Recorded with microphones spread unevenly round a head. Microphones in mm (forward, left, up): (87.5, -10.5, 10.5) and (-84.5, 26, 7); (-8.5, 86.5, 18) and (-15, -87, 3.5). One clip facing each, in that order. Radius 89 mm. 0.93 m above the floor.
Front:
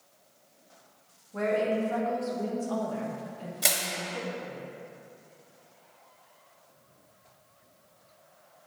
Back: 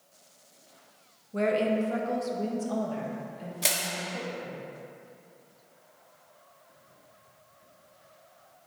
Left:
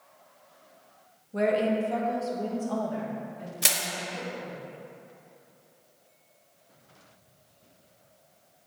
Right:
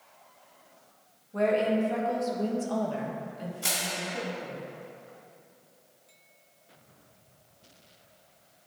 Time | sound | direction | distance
1.3 | a woman speaking | 145° left | 0.9 m
3.6 | crushing | 75° left | 0.9 m